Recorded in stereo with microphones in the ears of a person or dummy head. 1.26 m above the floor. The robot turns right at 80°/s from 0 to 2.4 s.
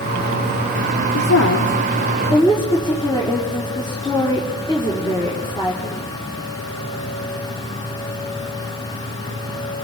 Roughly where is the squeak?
No squeak in this recording.